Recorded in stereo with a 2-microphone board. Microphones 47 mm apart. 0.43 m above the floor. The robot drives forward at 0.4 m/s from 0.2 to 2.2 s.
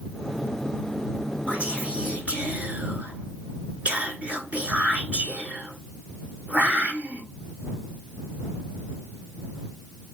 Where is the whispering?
25° right (ahead or behind), 1.3 m.